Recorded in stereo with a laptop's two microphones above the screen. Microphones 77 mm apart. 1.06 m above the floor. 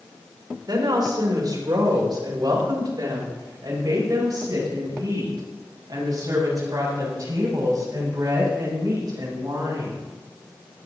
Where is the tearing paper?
No tearing paper in this recording.